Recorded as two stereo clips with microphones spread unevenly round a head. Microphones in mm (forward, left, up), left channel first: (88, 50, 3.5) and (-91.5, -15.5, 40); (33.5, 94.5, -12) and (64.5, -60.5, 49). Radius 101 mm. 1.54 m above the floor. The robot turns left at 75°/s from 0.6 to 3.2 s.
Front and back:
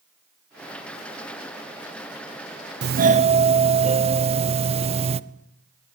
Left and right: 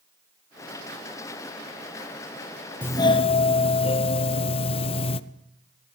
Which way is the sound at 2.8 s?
170° left.